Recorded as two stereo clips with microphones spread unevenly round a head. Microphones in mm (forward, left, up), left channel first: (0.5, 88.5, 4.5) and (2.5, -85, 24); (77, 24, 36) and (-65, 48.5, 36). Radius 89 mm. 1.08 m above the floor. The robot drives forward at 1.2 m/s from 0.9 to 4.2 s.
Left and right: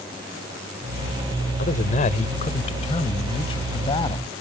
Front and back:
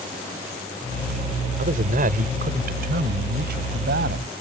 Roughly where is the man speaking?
Behind left.